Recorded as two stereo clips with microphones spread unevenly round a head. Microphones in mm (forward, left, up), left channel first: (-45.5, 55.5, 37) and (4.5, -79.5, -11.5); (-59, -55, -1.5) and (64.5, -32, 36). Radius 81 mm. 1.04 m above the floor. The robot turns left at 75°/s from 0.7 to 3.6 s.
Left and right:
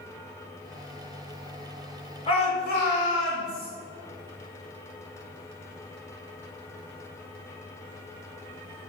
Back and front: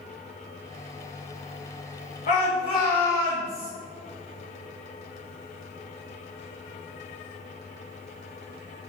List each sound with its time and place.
2.3 s a shout: 170° left, 2 m; by 3.7 s 70° left, 2 m